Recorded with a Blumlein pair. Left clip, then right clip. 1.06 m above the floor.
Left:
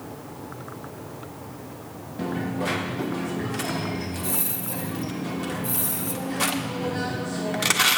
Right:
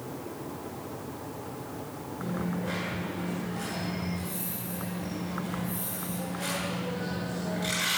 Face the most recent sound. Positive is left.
turn(degrees=40)